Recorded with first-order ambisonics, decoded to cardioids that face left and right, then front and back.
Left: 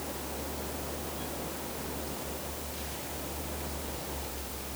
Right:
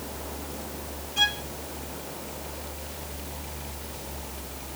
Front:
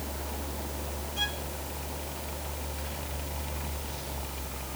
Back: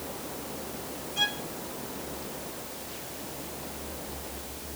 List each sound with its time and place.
1.2 s a violin: 105° right